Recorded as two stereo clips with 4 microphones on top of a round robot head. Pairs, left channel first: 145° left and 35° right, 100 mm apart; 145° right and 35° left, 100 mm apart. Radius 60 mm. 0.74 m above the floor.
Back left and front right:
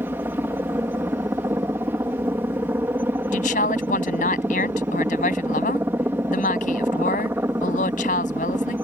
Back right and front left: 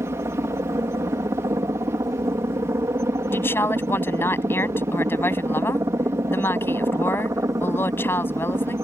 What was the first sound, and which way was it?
A helicopter, 10° left.